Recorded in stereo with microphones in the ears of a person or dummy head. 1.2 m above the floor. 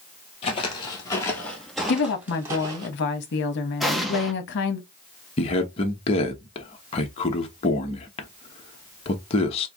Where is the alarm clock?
I don't hear an alarm clock.